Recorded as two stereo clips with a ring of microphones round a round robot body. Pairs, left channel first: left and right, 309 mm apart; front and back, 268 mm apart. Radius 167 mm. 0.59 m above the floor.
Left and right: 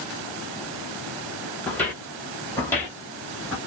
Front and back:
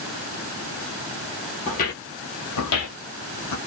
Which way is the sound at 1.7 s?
10° left.